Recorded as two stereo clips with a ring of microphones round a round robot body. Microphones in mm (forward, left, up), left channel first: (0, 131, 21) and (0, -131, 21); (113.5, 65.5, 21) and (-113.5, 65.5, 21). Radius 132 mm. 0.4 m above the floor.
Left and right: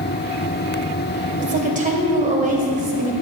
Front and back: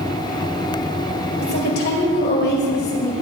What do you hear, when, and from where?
1.4 s a woman speaking: 35° right, 2.5 m